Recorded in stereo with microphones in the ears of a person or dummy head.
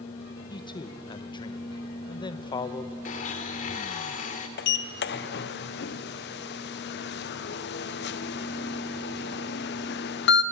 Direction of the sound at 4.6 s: 50° left (ahead or behind).